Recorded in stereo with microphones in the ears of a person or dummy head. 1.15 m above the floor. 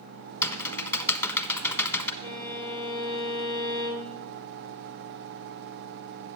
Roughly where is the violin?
Centre.